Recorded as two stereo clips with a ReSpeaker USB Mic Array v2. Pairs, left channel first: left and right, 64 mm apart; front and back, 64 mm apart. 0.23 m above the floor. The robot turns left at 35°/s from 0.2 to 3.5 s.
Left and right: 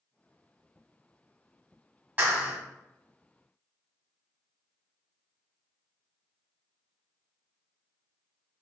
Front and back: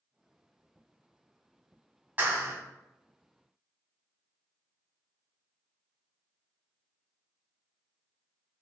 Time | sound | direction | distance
2.2 | a clap | 130° right | 1.7 m